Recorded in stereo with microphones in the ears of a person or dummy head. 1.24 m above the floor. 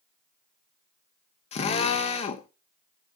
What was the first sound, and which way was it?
A drill, 35° left (ahead or behind).